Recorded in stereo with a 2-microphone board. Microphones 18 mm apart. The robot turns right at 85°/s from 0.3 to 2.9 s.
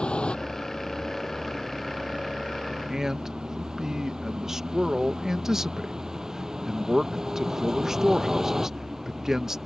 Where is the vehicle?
75° left (ahead or behind); by 9.7 s 30° right (ahead or behind).